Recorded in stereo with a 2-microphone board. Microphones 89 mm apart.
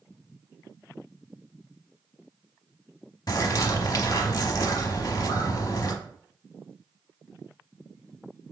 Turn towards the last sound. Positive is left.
turn(degrees=50)  # may be behind; listen again after turning